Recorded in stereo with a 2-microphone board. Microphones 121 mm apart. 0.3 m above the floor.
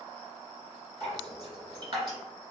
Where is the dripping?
35° right (ahead or behind), 1.8 m.